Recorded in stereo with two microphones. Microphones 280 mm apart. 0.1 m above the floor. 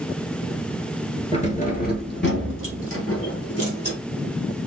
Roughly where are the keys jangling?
Left.